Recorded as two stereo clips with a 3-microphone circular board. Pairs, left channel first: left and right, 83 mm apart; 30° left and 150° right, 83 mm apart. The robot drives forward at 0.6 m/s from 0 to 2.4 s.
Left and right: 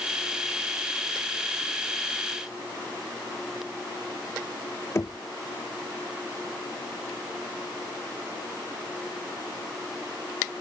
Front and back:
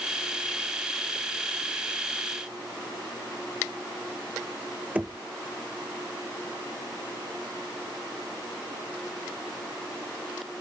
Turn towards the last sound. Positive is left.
turn(degrees=140)